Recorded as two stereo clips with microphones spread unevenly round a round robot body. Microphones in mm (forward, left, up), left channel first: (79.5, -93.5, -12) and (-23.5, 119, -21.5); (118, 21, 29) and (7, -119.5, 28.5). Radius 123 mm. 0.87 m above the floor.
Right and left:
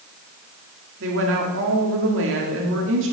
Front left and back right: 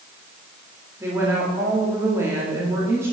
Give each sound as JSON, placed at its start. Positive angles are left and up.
{"t": 1.0, "sound": "a woman speaking", "azimuth_deg": 155, "distance_m": 1.9}